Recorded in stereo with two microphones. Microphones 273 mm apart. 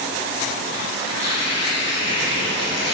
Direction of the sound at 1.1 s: 80° left.